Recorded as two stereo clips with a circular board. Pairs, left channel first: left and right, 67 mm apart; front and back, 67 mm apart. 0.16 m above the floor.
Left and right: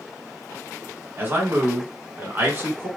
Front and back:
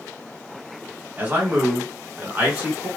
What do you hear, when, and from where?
1.2 s a man speaking: 130° right, 1.4 m